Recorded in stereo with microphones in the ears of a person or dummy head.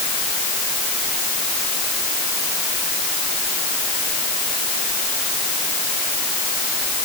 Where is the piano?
I don't hear a piano.